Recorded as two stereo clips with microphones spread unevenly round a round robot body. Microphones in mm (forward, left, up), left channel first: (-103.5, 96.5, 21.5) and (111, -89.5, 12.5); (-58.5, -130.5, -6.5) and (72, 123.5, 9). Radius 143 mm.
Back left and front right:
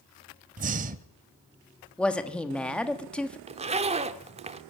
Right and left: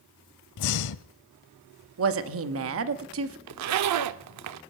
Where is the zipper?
30° left, 0.8 m.